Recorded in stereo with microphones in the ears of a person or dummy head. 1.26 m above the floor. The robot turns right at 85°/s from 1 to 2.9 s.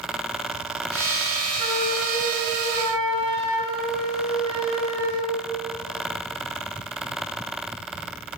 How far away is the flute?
About 1.1 m.